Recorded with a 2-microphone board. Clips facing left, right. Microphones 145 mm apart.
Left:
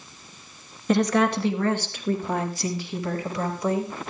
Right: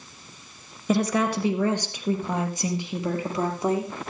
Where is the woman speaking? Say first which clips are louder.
Left 2 dB; 5° right (ahead or behind), 2 m; by 3.9 s 25° right (ahead or behind), 4 m.